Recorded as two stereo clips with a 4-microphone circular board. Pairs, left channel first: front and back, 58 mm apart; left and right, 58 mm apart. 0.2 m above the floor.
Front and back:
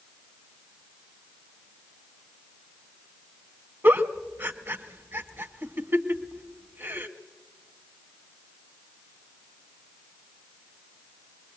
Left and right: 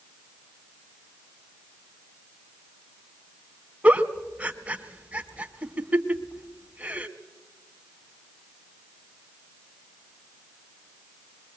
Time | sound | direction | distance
3.8 | a giggle | 145° right | 1.2 m